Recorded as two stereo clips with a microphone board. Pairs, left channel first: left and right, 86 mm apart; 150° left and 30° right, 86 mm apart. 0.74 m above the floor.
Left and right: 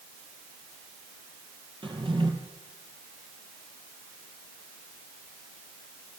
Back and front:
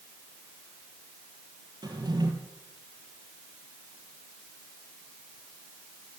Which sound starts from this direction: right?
A drawer, at 1.8 s.